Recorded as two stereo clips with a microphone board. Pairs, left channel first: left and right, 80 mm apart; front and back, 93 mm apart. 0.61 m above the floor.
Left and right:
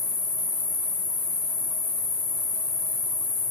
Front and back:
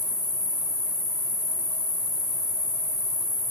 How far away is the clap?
No clap in this recording.